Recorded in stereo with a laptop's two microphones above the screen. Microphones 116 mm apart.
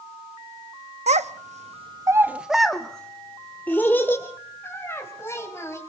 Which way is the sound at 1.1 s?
70° right (ahead or behind).